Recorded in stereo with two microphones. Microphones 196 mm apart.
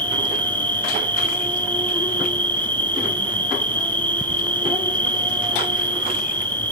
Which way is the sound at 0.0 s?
10° left (ahead or behind).